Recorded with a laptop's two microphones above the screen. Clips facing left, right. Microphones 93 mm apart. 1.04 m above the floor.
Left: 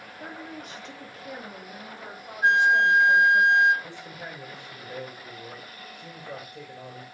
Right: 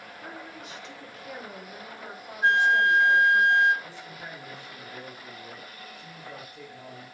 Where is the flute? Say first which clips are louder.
Left 1 dB; 15° left (ahead or behind), 1.1 m.